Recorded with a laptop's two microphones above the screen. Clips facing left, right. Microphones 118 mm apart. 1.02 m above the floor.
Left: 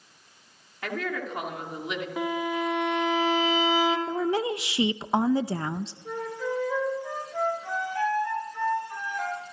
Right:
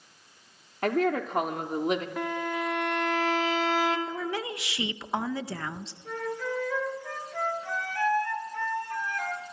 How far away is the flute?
About 4.5 m.